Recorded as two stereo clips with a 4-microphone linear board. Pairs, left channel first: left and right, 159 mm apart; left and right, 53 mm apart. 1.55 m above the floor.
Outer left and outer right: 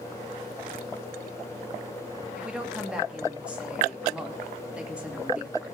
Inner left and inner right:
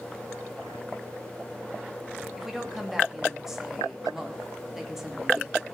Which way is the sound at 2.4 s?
5° right (ahead or behind).